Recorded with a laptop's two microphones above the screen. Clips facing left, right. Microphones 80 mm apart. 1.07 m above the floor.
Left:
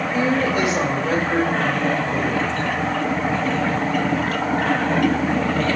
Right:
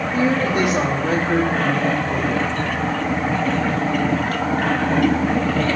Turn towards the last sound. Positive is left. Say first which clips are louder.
# right 1 dB
turn(degrees=-55)  # may be behind; listen again after turning